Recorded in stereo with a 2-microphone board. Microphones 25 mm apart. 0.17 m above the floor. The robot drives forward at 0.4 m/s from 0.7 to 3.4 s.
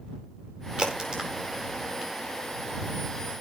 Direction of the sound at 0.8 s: 35° right (ahead or behind).